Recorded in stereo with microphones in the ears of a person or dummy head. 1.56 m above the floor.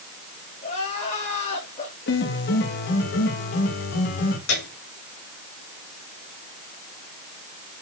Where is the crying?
35° left (ahead or behind), 4 m.